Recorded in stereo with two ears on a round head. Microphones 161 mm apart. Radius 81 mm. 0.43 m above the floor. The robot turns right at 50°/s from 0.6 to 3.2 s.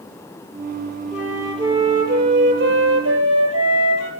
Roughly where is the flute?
Behind.